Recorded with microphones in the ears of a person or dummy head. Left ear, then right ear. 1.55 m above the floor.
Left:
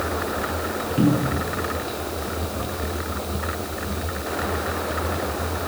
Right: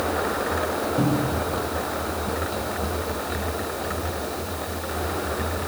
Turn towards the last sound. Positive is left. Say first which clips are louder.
# left 1 dB
turn(degrees=70)  # may be behind; listen again after turning